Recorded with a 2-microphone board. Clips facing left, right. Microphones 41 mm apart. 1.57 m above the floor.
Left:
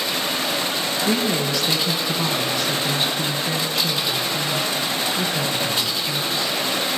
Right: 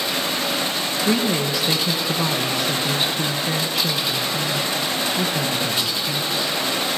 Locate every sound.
1.1 s a woman speaking: 10° right (ahead or behind), 1.9 m